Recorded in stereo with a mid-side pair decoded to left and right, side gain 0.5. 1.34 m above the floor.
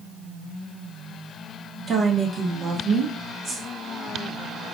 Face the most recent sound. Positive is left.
turn(degrees=-45)